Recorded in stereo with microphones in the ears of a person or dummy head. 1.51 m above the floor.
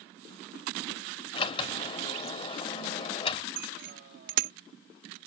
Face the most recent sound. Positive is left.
turn(degrees=-70)  # may be behind; listen again after turning